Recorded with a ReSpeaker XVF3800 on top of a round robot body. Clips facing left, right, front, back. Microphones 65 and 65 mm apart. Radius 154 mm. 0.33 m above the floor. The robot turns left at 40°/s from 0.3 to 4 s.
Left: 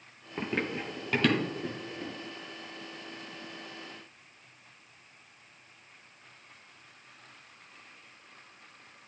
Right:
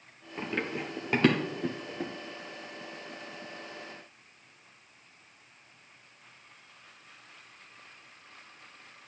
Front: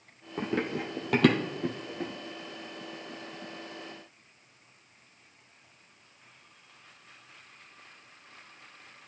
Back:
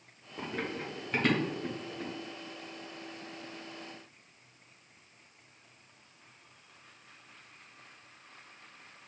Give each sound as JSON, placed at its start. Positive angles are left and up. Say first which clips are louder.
{"t": 0.4, "sound": "running footsteps", "louder": "left 1 dB, front 6 dB", "azimuth_deg": 20, "distance_m": 0.5}